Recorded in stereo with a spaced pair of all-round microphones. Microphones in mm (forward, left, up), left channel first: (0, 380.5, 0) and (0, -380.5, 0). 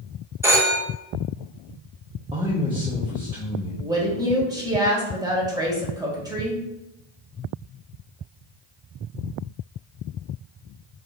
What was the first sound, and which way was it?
A phone ringing, 5° right (ahead or behind).